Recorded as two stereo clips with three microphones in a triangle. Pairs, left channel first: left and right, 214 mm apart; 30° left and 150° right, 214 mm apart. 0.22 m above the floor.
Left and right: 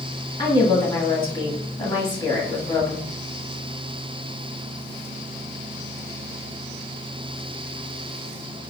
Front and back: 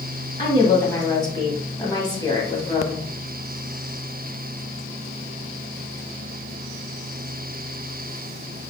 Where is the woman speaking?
65° left, 1.2 m.